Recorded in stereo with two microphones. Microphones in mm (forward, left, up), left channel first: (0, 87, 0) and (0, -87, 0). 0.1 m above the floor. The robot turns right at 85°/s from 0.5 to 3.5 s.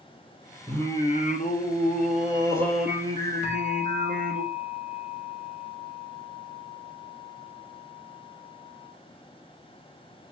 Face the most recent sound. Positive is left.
turn(degrees=40)  # may be behind; listen again after turning